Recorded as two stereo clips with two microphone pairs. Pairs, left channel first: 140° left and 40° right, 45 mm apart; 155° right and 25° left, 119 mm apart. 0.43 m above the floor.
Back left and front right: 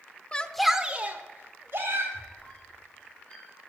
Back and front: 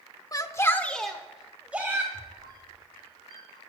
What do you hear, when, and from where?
0.3 s a shout: 175° left, 0.8 m; by 2.0 s 50° right, 1.9 m
2.1 s a squeak: 75° left, 5 m